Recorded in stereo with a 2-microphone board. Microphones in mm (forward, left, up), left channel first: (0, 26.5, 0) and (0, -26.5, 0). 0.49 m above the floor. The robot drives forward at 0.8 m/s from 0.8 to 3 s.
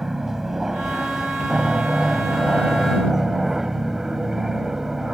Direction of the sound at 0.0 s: 5° right (ahead or behind).